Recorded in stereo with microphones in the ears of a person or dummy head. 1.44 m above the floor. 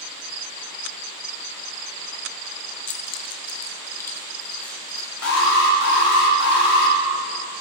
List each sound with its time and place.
2.9 s keys jangling: 40° left (ahead or behind), 0.7 m; by 6.2 s 5° left (ahead or behind), 3.5 m
5.2 s an alarm: 80° left, 2.5 m